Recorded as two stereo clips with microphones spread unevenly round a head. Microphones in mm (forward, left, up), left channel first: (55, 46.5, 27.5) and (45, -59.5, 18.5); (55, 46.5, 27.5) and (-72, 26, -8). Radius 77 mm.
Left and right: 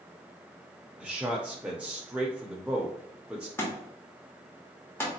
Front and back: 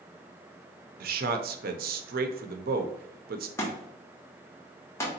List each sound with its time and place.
1.0 s a man speaking: straight behind, 0.6 m
3.6 s a thud: 40° left, 1.2 m